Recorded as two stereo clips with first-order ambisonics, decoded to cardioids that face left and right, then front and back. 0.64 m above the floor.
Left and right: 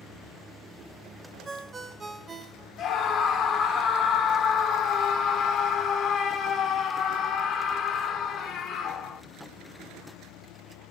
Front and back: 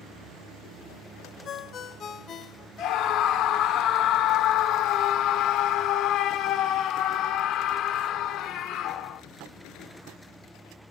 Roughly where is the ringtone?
Ahead right.